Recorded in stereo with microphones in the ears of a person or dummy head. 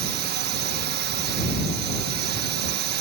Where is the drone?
55° right (ahead or behind).